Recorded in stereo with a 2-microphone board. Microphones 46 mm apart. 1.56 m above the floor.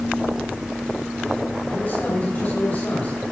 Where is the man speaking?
45° left (ahead or behind), 5.5 m.